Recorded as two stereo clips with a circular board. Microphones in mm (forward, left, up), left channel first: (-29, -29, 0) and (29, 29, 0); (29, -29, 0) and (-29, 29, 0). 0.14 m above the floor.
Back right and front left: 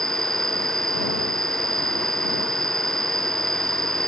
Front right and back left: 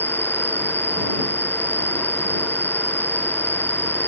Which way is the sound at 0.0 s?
75° left.